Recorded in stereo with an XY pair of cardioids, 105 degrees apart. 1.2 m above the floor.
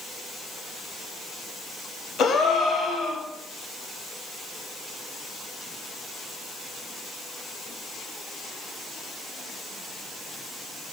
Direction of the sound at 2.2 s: 55° left.